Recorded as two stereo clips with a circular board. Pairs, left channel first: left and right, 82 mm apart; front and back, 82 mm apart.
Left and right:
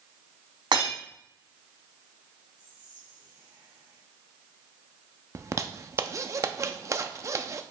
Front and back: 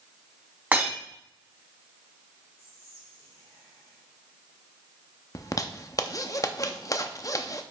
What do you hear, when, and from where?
0.7 s breaking glass: 110° right, 4 m
2.6 s whispering: 50° right, 3 m
5.3 s a zipper: 40° right, 0.6 m